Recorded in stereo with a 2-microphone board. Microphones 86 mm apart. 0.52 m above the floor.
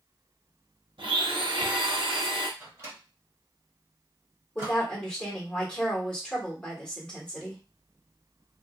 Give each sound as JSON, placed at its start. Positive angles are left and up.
{"t": 1.0, "sound": "a blender", "side_deg": -80, "distance_m": 0.6}
{"t": 2.6, "sound": "a microwave", "side_deg": -30, "distance_m": 1.6}
{"t": 4.5, "sound": "a woman speaking", "side_deg": 10, "distance_m": 1.5}